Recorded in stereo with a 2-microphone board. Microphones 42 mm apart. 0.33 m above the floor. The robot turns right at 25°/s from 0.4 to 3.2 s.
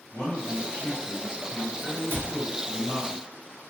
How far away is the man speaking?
About 1.4 m.